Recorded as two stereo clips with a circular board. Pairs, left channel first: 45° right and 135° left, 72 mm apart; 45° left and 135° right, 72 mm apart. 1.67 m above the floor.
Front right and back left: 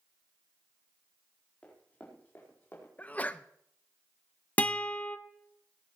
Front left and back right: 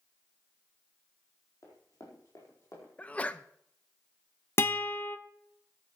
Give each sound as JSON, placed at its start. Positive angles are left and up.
{"t": 1.6, "sound": "running footsteps", "azimuth_deg": 25, "distance_m": 4.0}
{"t": 3.0, "sound": "a sneeze", "azimuth_deg": -5, "distance_m": 0.6}
{"t": 4.6, "sound": "a guitar", "azimuth_deg": 10, "distance_m": 0.6}